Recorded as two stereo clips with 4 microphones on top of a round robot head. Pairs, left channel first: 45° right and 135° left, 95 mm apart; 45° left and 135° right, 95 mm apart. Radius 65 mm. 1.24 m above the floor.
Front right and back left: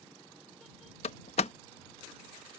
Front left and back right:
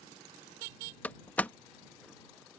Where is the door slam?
30° right.